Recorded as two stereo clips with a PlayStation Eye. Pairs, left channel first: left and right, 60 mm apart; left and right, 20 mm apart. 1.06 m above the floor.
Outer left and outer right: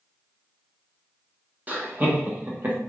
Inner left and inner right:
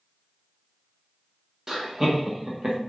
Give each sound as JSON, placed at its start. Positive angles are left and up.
{"t": 1.7, "sound": "laughter", "side_deg": -30, "distance_m": 0.8}